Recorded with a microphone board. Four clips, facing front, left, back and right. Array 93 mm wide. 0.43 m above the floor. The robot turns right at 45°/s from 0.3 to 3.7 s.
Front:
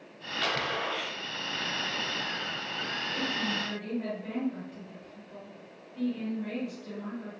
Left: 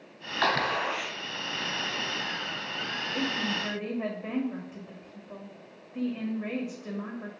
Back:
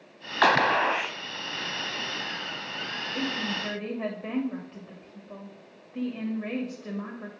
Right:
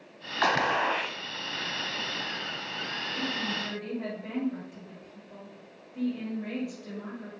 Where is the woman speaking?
125° left, 2.5 m; by 7.3 s 150° left, 2.5 m.